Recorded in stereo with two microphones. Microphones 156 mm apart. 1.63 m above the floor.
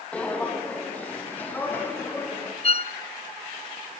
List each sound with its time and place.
0.1 s footsteps: 10° left (ahead or behind), 4 m; by 2.5 s 15° left (ahead or behind), 5 m
2.6 s a violin: 40° left (ahead or behind), 0.7 m